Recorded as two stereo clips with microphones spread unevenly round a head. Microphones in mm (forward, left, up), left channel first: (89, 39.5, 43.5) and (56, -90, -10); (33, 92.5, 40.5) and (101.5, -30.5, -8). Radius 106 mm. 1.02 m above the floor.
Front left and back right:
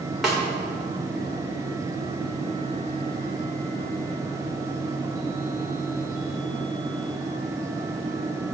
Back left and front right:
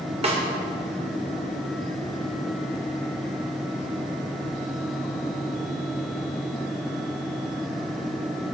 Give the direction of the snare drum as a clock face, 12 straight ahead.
12 o'clock.